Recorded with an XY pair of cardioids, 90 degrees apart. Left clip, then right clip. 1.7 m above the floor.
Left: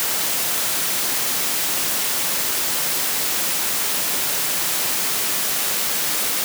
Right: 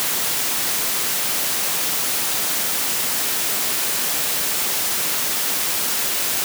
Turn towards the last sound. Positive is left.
No sound to turn to.